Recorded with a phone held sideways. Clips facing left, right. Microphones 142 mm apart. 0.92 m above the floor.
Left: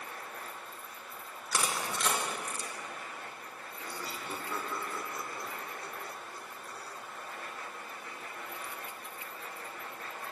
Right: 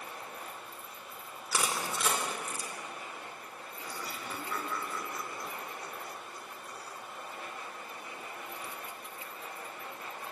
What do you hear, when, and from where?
0.0 s a machine running: 15° right (ahead or behind), 3 m
1.5 s crushing: 5° right (ahead or behind), 4 m
3.8 s laughter: 25° left (ahead or behind), 3.5 m